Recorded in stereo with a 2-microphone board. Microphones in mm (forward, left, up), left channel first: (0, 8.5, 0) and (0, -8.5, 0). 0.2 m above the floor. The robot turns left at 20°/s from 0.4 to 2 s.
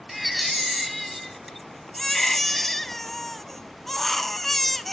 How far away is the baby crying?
About 0.5 m.